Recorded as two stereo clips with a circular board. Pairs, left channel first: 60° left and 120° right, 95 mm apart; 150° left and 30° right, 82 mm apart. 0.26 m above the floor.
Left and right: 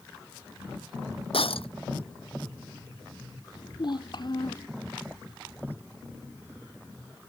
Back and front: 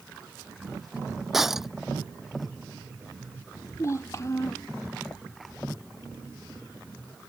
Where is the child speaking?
95° left.